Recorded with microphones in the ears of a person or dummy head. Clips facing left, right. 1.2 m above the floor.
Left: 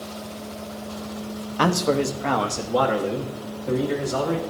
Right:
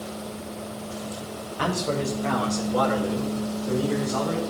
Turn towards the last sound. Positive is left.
turn(degrees=45)  # may be behind; listen again after turning